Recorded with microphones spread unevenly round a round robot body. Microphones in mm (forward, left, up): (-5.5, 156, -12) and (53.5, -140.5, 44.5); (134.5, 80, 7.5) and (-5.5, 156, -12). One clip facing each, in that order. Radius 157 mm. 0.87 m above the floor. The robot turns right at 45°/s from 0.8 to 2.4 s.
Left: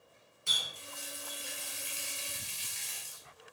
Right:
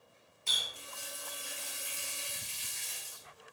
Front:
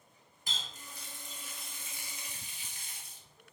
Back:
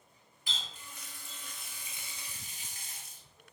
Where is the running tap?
30° left, 0.7 m; by 3.2 s 100° left, 0.7 m.